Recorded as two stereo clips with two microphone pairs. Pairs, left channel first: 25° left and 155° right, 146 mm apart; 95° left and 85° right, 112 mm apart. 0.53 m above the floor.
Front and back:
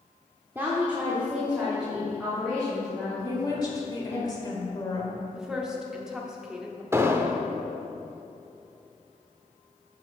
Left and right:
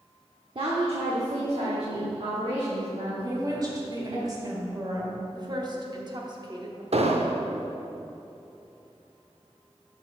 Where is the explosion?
85° right, 0.6 m.